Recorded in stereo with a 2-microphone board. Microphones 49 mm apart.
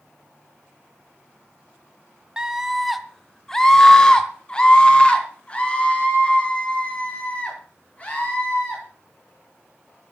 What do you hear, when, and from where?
2.4 s a scream: 15° right (ahead or behind), 1.4 m; by 8.8 s 30° left (ahead or behind), 7.5 m